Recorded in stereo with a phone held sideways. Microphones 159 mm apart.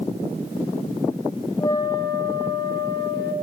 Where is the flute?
20° left (ahead or behind), 0.8 m.